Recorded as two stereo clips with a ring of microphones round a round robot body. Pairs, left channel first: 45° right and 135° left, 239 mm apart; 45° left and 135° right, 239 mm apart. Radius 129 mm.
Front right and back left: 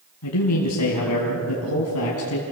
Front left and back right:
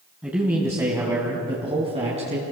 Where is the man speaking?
50° right, 3 m; by 2.4 s 70° right, 3.5 m.